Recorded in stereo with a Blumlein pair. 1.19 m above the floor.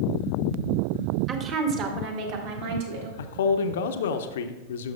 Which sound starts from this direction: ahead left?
A man speaking, at 3.2 s.